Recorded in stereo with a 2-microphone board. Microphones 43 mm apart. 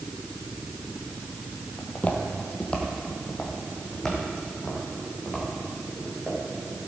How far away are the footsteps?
About 1.4 m.